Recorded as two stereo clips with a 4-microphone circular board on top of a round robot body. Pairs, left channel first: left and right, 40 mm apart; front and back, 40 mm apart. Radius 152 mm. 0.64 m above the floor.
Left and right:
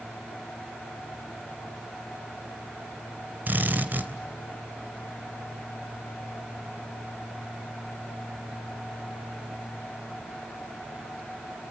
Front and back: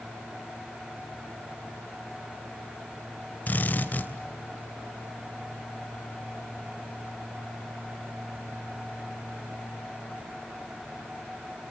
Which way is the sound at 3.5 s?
45° right.